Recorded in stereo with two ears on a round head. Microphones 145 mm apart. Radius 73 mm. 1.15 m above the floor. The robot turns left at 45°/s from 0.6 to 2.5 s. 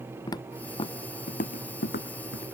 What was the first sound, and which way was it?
Footsteps, 25° left (ahead or behind).